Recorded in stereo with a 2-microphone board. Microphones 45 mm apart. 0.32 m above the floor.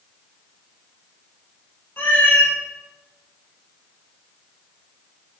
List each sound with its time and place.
2.0 s a cat meowing: 45° left (ahead or behind), 0.8 m